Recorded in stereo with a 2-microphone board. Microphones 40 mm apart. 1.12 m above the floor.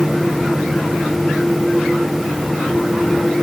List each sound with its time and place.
Only background noise.